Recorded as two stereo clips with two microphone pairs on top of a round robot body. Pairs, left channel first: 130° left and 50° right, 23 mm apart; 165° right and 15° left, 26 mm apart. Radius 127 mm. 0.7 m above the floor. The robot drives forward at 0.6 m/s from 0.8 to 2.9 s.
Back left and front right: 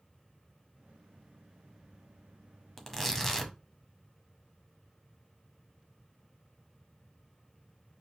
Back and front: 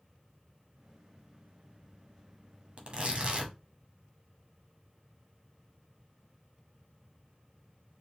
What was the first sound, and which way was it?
Tearing paper, 70° left.